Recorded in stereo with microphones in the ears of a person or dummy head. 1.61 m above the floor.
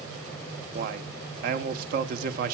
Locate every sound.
0.7 s a man speaking: 50° right (ahead or behind), 1.1 m